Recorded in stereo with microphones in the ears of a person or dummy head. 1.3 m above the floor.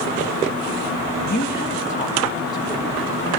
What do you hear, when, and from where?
1.3 s a woman speaking: 50° left (ahead or behind), 2 m; by 3.3 s 5° left (ahead or behind), 3.5 m